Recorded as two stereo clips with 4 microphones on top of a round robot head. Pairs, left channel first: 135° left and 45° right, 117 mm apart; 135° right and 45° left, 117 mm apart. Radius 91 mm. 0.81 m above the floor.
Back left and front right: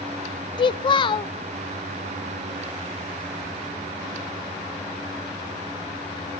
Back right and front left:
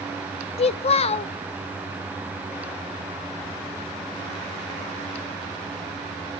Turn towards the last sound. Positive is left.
turn(degrees=-175)